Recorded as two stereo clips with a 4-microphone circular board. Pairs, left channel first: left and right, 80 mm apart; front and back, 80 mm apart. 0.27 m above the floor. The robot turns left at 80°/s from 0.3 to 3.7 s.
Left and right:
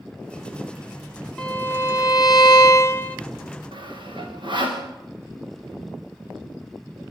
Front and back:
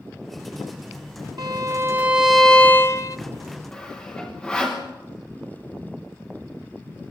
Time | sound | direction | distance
1.4 | a violin | 165° left | 1.0 m
3.7 | sawing | 75° right | 6 m